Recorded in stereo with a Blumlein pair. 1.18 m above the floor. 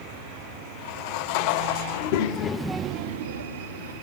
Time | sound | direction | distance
1.9 | a child speaking | 60° left | 1.1 m